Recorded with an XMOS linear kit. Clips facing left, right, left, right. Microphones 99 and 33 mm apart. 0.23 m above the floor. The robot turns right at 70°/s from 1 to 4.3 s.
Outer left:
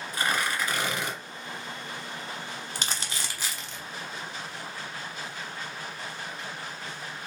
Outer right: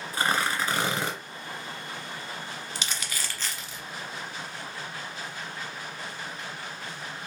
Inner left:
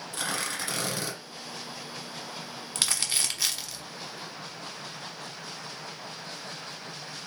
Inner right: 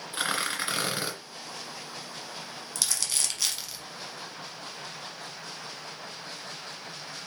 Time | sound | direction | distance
0.1 | tearing paper | 30° right (ahead or behind) | 1.5 m
2.8 | crumpling | 45° left (ahead or behind) | 1.1 m